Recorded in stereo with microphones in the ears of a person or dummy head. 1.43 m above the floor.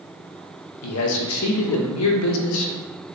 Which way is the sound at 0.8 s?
85° left.